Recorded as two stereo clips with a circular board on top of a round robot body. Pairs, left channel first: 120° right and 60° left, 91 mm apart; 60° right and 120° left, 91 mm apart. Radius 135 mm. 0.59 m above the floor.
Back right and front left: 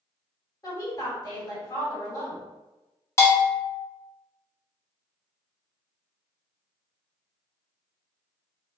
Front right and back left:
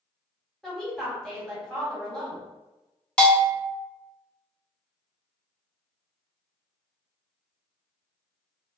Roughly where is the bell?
Behind right.